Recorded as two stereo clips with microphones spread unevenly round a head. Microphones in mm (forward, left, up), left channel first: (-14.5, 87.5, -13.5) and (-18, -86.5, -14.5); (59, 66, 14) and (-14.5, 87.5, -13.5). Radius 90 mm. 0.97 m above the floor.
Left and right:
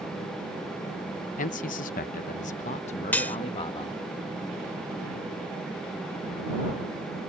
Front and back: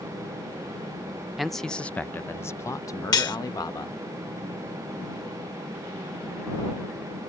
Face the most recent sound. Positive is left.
turn(degrees=5)